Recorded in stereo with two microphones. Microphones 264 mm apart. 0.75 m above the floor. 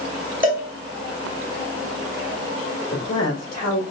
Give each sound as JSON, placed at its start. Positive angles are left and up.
{"t": 0.4, "sound": "a cowbell", "side_deg": -35, "distance_m": 1.7}
{"t": 2.9, "sound": "a woman speaking", "side_deg": 75, "distance_m": 2.0}